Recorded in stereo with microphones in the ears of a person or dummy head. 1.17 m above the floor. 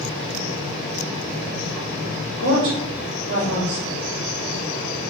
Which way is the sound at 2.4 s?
50° right (ahead or behind).